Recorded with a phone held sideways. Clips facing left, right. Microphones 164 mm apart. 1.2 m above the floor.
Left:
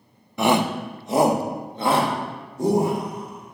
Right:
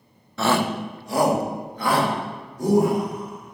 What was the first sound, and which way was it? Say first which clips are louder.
A shout: left 2 dB; 15° left (ahead or behind).